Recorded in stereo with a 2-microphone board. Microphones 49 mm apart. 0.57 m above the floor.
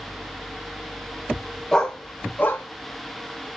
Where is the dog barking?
15° left (ahead or behind), 0.7 m; by 3.5 s 55° left (ahead or behind), 1.5 m.